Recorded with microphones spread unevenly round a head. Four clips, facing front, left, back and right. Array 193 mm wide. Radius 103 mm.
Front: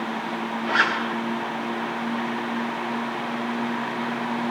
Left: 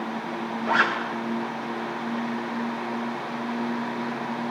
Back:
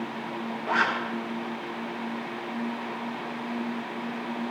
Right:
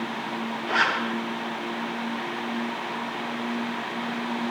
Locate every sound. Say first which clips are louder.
0.7 s a zipper: left 2 dB, front 2 dB; 115° left, 6.5 m